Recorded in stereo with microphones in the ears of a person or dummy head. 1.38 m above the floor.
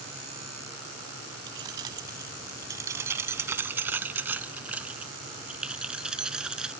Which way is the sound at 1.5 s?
25° right (ahead or behind).